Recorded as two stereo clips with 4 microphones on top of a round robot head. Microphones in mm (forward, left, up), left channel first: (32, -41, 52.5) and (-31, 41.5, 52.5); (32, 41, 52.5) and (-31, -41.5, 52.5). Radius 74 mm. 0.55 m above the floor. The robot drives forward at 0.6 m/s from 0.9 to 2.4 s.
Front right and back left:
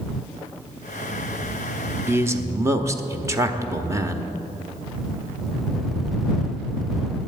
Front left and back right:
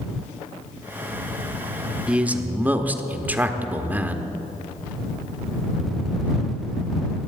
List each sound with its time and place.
2.1 s a man speaking: 160° left, 0.9 m; by 4.3 s 165° left, 1.0 m